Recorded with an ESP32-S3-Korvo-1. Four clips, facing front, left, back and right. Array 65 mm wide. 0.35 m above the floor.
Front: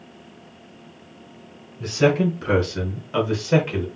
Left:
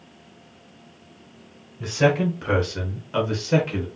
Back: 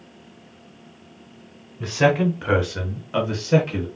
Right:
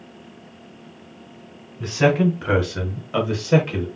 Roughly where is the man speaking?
Behind.